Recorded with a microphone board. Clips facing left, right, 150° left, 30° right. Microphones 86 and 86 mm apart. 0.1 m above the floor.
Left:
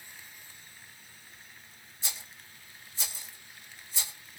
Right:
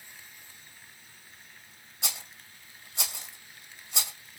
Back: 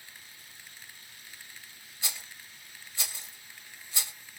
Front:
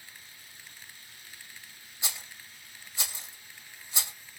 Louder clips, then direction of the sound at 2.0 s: Right 4 dB, front 1 dB; 100° right.